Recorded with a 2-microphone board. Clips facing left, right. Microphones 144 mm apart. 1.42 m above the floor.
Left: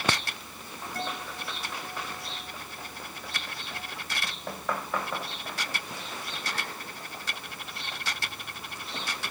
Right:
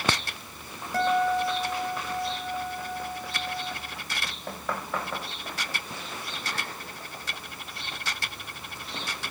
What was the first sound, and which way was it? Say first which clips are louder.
A guitar: right 14 dB; 80° right.